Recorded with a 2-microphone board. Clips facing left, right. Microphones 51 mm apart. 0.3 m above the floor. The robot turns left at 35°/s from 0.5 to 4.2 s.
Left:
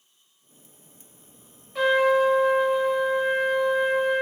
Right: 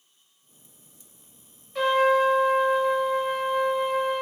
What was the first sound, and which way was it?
A trumpet, 5° left (ahead or behind).